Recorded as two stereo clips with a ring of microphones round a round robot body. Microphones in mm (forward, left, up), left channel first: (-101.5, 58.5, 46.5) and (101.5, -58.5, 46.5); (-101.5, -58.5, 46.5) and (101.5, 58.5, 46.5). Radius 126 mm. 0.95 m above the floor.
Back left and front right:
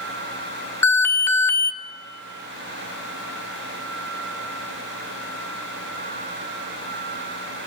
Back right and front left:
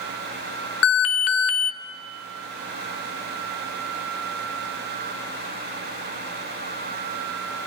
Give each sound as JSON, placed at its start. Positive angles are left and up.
{"t": 0.8, "sound": "an alarm", "azimuth_deg": -130, "distance_m": 1.1}